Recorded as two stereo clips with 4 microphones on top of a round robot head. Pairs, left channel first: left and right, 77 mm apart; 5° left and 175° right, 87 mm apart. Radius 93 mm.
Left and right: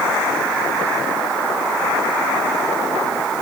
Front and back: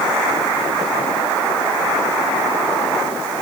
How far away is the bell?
I don't hear a bell.